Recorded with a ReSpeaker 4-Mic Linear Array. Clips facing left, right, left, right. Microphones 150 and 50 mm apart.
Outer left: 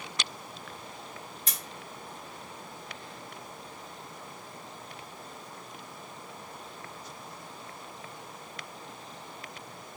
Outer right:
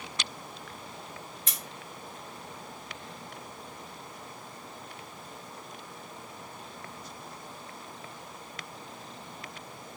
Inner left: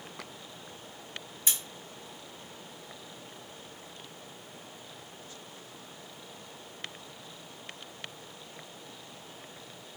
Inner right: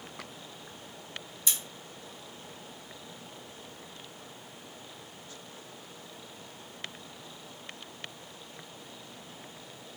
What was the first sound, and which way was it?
Scissors, 35° left (ahead or behind).